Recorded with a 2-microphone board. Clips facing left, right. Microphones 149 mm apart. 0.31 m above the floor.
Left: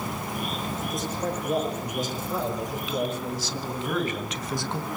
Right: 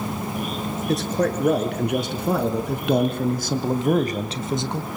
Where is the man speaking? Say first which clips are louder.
Right 11 dB; 75° right (ahead or behind), 5 m; by 4.9 s 10° right (ahead or behind), 1.7 m.